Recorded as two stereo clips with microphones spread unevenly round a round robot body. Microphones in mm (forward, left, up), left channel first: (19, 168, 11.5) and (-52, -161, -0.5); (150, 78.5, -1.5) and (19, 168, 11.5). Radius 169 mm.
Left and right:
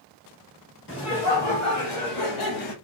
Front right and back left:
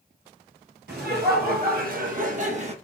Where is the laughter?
135° left, 2 m; by 2.8 s 95° left, 1.5 m.